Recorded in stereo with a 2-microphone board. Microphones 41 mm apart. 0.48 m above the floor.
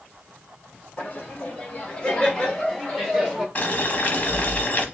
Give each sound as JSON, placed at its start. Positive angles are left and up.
{"t": 1.0, "sound": "laughter", "side_deg": 35, "distance_m": 1.8}
{"t": 3.5, "sound": "boiling", "side_deg": 40, "distance_m": 1.0}